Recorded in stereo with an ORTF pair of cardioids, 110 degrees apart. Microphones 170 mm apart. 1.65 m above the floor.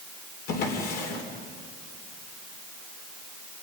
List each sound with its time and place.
0.5 s a drawer: 65° left, 3.5 m